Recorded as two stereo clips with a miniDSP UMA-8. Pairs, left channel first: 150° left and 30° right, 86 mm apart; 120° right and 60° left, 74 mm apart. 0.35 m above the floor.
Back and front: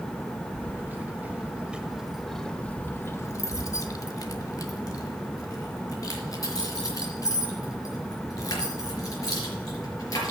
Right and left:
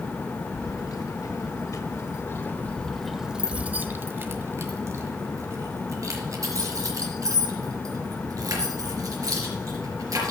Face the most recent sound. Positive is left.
turn(degrees=100)